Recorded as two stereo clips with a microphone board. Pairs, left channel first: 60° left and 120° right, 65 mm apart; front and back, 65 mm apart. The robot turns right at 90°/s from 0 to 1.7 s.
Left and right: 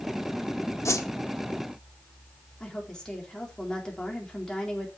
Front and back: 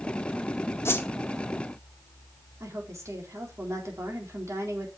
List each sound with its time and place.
0.8 s a whoosh: 35° left, 1.2 m; by 1.1 s 55° left, 1.2 m
2.6 s a woman speaking: 140° left, 4 m